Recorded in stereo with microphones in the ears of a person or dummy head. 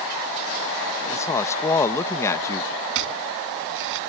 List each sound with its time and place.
1.1 s a woman speaking: 15° left (ahead or behind)
3.0 s chopping: 75° right (ahead or behind)